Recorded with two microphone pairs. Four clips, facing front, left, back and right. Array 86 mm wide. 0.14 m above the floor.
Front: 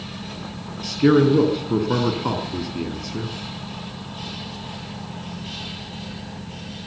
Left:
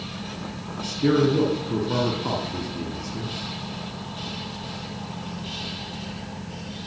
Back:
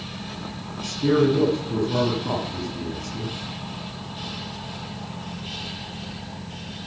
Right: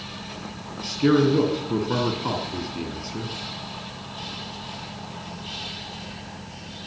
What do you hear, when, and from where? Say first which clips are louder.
0.8 s a man speaking: right 1 dB, front 4 dB; 10° left, 3.5 m